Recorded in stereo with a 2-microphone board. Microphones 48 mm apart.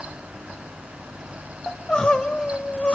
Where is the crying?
20° left (ahead or behind), 1.4 m.